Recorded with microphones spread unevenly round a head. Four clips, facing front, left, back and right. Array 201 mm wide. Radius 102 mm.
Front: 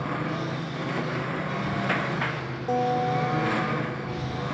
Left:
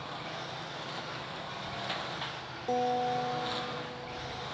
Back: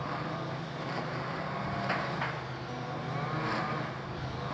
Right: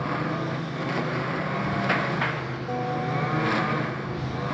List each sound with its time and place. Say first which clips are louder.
0.0 s a lawn mower: right 13 dB, front 6 dB; 60° right
2.7 s a guitar: even, front 16 dB; 5° left